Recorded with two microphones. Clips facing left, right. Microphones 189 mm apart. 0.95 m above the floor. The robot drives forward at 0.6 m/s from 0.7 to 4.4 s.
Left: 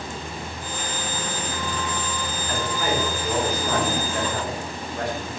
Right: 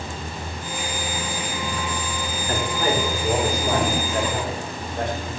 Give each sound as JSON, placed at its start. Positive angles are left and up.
{"t": 2.5, "sound": "a man speaking", "side_deg": -35, "distance_m": 2.5}